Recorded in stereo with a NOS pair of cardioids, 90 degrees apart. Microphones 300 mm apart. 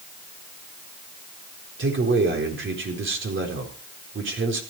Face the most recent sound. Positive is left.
turn(degrees=-40)